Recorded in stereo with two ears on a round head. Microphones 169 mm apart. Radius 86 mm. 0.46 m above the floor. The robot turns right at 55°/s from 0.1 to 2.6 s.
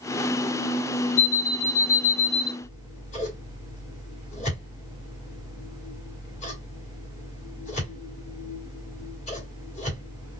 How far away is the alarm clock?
About 1.4 m.